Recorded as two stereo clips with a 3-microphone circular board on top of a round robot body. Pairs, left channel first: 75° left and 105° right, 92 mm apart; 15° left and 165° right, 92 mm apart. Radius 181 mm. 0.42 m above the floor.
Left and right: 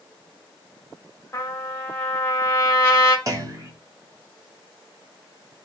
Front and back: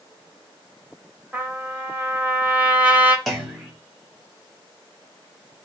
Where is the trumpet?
125° left, 1.5 m.